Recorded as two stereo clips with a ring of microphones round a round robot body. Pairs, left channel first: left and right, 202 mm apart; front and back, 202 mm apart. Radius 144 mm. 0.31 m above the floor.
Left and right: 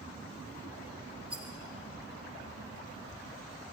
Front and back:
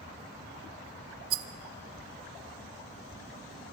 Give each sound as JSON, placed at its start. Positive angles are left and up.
{"t": 1.3, "sound": "a rattle", "azimuth_deg": -175, "distance_m": 0.8}